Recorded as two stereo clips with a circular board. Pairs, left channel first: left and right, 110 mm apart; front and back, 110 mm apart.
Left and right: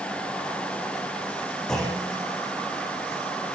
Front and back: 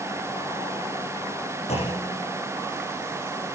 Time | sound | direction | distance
1.7 | a clunk | 5° left | 8 m